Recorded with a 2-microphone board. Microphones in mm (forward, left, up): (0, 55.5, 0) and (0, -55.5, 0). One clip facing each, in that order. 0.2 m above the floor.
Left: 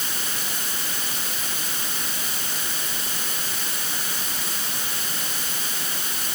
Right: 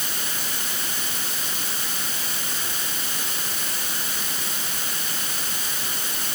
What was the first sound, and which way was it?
Only background noise.